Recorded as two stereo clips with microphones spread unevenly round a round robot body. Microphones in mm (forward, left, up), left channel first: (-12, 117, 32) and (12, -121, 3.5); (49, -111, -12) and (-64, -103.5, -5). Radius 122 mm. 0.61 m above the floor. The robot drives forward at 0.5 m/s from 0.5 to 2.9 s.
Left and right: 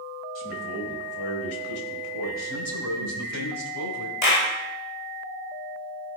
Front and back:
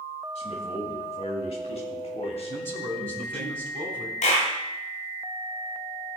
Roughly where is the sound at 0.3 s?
Ahead left.